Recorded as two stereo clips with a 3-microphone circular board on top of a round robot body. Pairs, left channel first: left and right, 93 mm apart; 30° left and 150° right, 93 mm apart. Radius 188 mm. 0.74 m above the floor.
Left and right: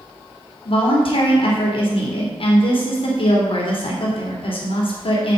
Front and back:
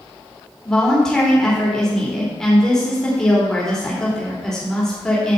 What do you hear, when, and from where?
0.7 s a woman speaking: 115° left, 2.5 m